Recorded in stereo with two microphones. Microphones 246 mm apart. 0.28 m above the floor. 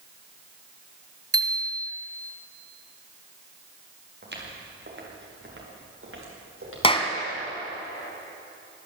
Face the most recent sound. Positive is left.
turn(degrees=25)  # may be behind; listen again after turning